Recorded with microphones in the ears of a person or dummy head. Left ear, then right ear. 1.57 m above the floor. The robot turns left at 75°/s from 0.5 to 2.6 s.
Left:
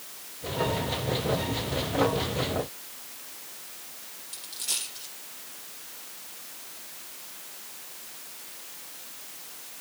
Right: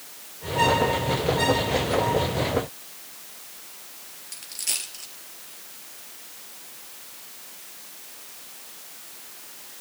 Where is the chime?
No chime in this recording.